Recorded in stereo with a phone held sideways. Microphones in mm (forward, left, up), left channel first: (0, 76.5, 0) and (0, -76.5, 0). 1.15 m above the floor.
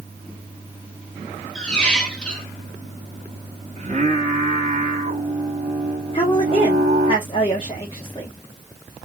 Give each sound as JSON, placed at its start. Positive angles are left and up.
{"t": 1.6, "sound": "a squeak", "side_deg": 5, "distance_m": 0.9}
{"t": 3.8, "sound": "singing", "side_deg": -45, "distance_m": 2.0}
{"t": 6.1, "sound": "a woman speaking", "side_deg": 35, "distance_m": 1.2}